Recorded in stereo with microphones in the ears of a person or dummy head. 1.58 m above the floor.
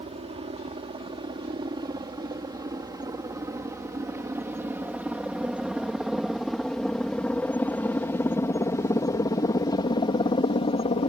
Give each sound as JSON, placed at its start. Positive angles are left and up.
{"t": 0.0, "sound": "a helicopter", "side_deg": -30}